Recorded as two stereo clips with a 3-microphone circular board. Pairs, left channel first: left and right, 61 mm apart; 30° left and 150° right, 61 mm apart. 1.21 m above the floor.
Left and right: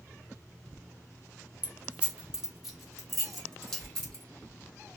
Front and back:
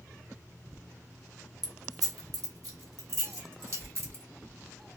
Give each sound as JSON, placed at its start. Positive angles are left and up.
{"t": 1.6, "sound": "keys jangling", "azimuth_deg": -155, "distance_m": 0.8}